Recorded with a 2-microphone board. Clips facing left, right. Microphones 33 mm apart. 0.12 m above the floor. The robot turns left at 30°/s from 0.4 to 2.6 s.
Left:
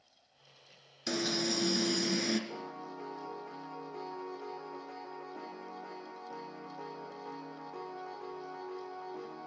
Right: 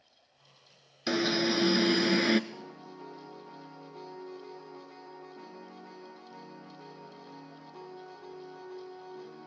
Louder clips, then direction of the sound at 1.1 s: Right 6 dB; 45° right.